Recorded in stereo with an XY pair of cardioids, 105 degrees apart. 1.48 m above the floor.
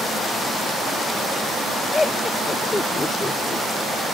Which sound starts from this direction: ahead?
Laughter, at 1.9 s.